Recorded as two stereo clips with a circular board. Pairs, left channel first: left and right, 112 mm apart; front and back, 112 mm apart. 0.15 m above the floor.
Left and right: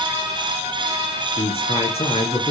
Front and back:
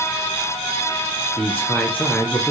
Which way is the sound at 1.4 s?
70° left.